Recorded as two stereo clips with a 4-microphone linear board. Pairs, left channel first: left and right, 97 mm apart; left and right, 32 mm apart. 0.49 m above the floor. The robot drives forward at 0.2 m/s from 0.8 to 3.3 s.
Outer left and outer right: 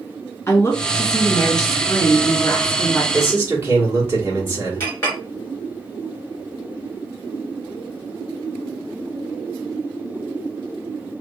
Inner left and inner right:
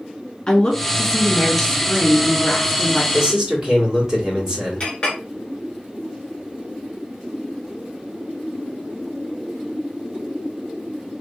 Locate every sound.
0.5 s a woman speaking: 25° left (ahead or behind), 1.4 m
3.1 s a man speaking: 25° right (ahead or behind), 1.6 m
4.8 s a clink: 25° left (ahead or behind), 1.8 m